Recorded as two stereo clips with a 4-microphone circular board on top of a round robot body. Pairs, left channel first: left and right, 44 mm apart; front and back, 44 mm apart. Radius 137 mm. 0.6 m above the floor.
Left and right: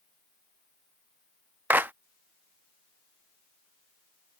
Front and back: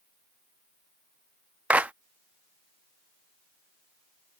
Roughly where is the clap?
Behind right.